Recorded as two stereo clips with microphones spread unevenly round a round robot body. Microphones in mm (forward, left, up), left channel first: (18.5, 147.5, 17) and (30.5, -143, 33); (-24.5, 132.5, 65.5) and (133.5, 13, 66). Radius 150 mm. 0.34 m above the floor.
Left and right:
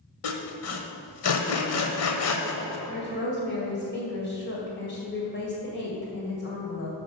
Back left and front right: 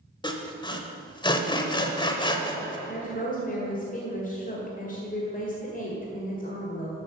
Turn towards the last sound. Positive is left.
turn(degrees=125)